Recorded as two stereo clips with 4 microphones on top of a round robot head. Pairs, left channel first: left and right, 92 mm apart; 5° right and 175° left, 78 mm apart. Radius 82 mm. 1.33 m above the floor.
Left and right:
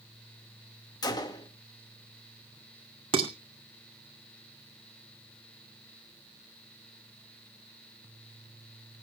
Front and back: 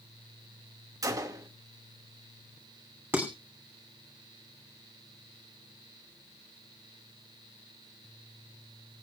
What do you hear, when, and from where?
1.0 s a gunshot: 135° left, 1.6 m
3.1 s dishes clattering: 110° right, 2.5 m